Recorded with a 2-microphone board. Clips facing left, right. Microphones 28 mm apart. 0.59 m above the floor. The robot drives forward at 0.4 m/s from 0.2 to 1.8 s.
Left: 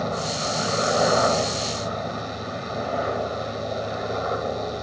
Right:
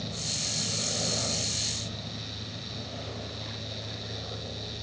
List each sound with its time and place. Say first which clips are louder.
0.0 s a helicopter: left 8 dB; 60° left (ahead or behind)